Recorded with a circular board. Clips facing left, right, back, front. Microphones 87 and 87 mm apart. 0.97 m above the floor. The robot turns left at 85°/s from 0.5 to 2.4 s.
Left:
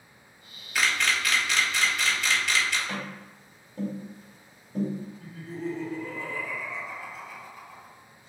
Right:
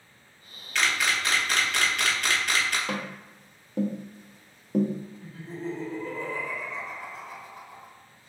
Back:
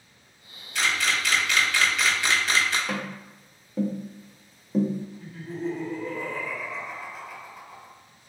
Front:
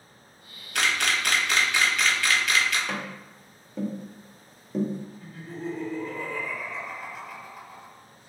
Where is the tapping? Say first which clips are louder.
Right 3 dB, back 2 dB; 90° right, 0.6 m.